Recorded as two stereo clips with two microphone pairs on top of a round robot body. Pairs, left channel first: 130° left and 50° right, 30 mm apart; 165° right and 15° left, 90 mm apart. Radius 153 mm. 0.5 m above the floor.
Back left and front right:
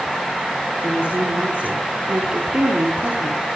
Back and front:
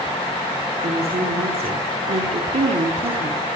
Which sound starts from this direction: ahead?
A woman speaking, at 0.8 s.